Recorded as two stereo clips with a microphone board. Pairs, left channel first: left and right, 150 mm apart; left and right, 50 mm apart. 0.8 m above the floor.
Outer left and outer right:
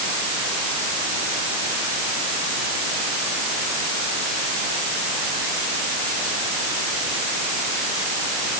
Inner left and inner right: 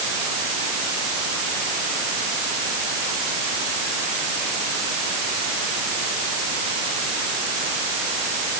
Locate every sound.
Only background noise.